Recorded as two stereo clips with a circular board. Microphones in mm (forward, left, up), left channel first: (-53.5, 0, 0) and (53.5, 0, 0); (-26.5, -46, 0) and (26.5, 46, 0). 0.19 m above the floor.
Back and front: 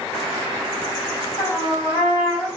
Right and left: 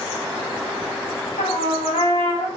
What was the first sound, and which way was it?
A trumpet, 110° right.